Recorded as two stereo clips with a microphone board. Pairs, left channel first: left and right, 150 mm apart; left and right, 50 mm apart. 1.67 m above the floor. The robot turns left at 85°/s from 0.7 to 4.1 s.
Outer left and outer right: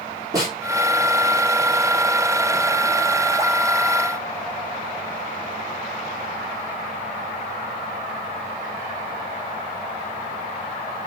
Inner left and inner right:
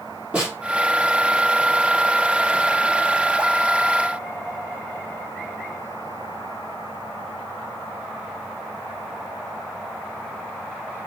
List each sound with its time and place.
0.3 s a snare drum: 25° right (ahead or behind), 4.5 m